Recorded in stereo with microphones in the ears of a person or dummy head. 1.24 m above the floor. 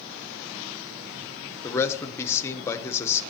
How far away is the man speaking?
About 0.8 m.